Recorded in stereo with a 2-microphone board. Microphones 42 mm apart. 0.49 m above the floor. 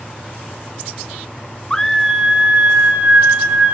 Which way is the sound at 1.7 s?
15° left (ahead or behind).